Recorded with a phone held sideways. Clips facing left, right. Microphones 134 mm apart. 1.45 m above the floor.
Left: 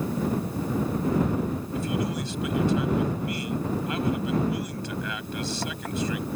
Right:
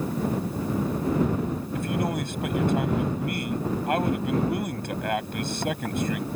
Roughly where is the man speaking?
Right.